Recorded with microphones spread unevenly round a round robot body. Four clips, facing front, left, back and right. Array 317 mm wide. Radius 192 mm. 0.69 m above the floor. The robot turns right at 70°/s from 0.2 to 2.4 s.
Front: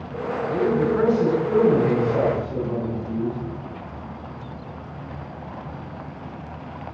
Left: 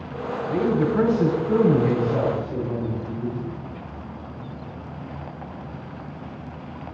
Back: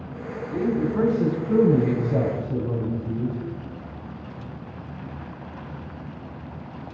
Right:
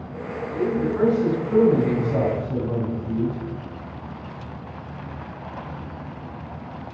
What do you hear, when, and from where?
0.5 s a man speaking: 65° left, 7 m; by 3.4 s 160° right, 7 m